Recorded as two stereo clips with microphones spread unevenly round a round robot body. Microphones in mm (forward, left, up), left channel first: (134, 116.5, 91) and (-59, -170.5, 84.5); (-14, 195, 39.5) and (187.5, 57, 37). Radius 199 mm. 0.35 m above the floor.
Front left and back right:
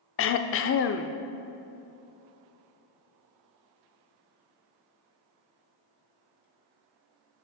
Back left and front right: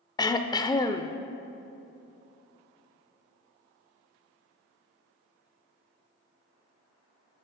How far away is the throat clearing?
About 0.5 m.